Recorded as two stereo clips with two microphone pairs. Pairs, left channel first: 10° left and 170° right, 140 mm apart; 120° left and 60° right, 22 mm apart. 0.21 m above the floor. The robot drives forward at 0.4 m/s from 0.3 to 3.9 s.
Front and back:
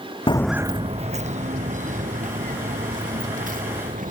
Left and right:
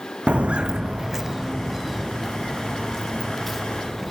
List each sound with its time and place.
0.3 s footsteps: 40° right; by 4.1 s 150° right